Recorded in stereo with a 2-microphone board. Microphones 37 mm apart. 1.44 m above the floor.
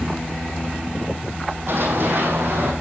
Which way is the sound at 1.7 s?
60° right (ahead or behind).